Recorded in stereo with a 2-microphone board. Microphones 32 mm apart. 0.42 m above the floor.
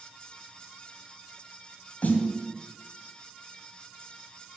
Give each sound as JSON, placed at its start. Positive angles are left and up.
{"t": 2.0, "sound": "a snare drum", "side_deg": 55, "distance_m": 2.0}